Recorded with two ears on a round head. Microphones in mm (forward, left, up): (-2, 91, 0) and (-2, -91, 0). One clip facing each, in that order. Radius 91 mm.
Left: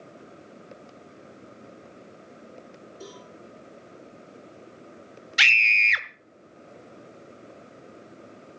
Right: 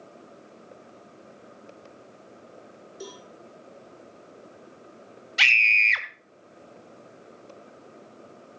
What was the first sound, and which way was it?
A cowbell, 55° right (ahead or behind).